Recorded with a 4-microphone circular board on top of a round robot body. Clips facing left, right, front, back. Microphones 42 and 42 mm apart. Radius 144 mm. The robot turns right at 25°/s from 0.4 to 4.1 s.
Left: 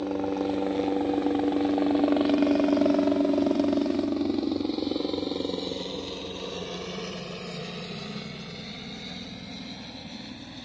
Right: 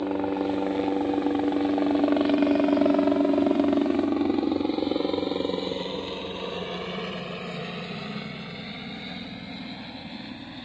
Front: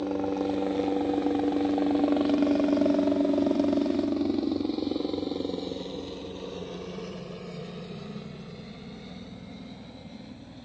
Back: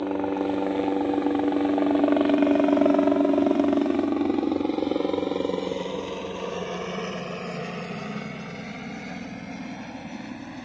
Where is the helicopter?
145° right; by 10.7 s 160° right.